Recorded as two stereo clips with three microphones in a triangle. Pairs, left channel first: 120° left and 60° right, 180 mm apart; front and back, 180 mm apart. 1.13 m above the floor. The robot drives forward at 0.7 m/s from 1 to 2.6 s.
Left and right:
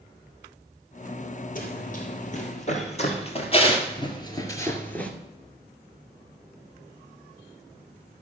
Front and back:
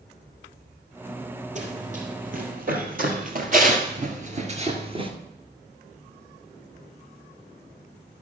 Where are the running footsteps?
145° left, 2.0 m; by 5.1 s 160° right, 1.2 m.